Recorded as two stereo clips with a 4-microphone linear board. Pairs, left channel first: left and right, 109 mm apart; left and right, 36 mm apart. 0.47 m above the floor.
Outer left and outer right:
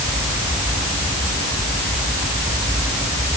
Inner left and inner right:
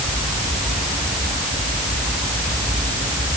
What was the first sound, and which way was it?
Only background noise.